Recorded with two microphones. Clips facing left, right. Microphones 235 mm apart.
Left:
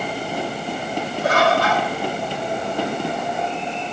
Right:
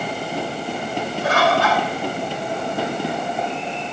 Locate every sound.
1.2 s a bird: 40° left (ahead or behind), 7.5 m